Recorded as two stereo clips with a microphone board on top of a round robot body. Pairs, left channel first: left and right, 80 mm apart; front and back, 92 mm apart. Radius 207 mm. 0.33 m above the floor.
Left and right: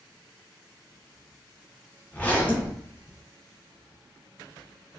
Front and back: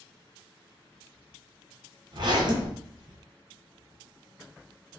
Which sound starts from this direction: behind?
A zipper, at 2.1 s.